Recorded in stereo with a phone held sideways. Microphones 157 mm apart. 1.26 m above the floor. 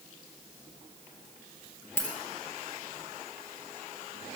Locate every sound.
2.0 s a dropped coin: 15° left (ahead or behind), 2.5 m